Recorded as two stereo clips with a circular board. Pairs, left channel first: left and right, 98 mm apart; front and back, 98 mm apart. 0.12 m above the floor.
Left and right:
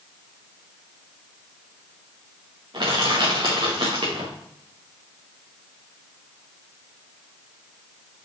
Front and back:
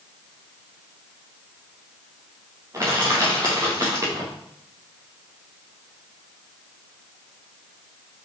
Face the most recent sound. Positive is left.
turn(degrees=-125)